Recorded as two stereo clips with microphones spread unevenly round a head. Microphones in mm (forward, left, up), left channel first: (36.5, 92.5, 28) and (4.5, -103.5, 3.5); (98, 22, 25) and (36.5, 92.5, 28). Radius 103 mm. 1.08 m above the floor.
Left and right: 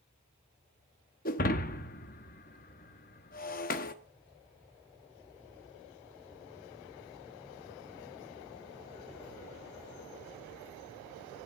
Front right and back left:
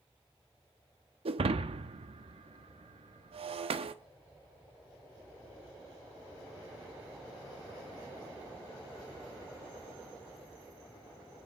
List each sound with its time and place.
1.2 s breaking glass: 125° left, 0.9 m